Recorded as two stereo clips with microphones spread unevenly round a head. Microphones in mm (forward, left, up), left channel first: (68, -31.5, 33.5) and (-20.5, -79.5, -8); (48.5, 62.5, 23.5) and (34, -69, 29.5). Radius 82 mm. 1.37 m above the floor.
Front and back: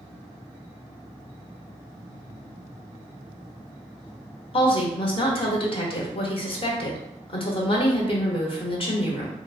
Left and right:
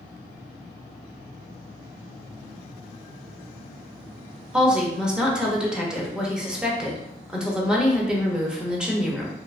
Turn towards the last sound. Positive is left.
turn(degrees=-10)